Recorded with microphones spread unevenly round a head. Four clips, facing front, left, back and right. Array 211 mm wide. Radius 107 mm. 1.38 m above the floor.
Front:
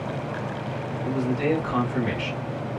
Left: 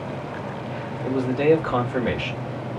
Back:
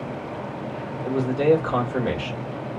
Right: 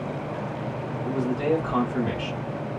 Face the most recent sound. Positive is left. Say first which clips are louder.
# left 6 dB, back 5 dB
turn(degrees=120)